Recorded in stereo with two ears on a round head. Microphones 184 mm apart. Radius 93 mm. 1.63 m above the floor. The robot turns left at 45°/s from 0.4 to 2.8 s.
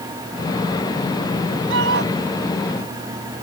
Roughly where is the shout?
Right.